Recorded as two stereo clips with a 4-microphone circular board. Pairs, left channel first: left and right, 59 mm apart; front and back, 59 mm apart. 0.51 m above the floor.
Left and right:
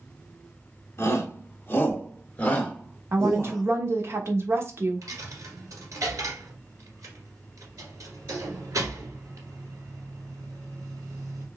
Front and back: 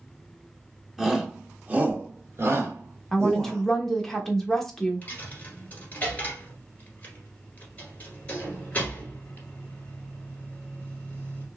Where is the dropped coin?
60° right, 1.7 m.